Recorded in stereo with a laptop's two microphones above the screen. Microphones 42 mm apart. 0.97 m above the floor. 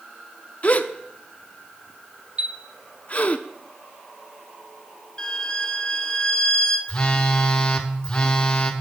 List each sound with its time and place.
0.6 s a gasp: 35° left (ahead or behind), 0.5 m
2.4 s a chime: 30° right (ahead or behind), 0.7 m
5.2 s a violin: 20° left (ahead or behind), 0.8 m
6.9 s a phone buzzing: 20° left (ahead or behind), 1.2 m